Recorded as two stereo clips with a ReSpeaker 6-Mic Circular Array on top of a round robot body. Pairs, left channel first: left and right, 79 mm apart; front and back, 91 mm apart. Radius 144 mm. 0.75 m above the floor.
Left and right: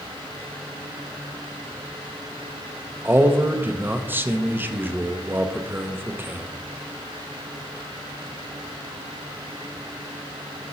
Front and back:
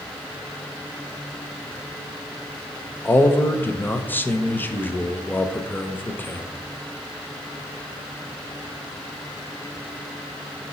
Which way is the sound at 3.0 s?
50° right.